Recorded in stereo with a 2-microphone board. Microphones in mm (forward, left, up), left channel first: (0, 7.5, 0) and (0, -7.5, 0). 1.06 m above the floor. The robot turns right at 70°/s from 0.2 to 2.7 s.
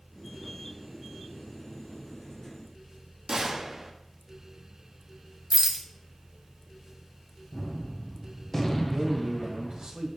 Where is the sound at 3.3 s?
40° right (ahead or behind), 1.2 m.